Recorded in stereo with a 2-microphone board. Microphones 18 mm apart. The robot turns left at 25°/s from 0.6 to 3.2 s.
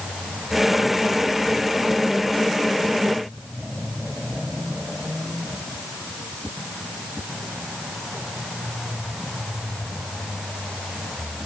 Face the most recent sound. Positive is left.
No sound to turn to.